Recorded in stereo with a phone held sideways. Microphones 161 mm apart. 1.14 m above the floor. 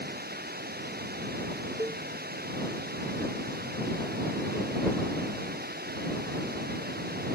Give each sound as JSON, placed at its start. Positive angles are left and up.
{"t": 0.0, "sound": "running water", "side_deg": -75}
{"t": 1.8, "sound": "a cowbell", "side_deg": -20}